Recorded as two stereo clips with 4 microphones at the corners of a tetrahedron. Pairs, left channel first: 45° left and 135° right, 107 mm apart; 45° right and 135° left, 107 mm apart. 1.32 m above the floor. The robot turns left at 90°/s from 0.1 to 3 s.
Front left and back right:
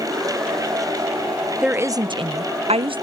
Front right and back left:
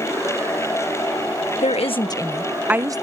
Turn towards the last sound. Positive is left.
turn(degrees=-175)